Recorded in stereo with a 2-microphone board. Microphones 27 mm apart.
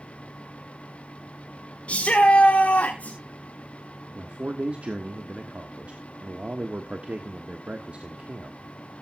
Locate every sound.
1.9 s a shout: 50° left (ahead or behind), 1.7 m; by 3.2 s 65° left (ahead or behind), 2 m
4.2 s a man speaking: 50° right (ahead or behind), 1.2 m